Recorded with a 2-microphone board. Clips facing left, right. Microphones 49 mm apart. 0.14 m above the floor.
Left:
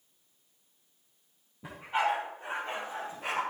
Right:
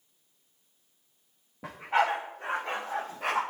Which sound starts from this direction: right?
A dog barking, at 1.6 s.